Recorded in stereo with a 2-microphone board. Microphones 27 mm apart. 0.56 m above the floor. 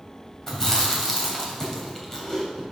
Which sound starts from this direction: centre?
Chewing, at 0.5 s.